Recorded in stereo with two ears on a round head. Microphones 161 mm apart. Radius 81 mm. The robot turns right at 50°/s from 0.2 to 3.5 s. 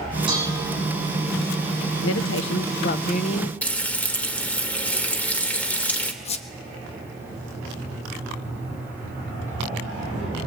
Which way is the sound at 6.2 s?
35° left (ahead or behind).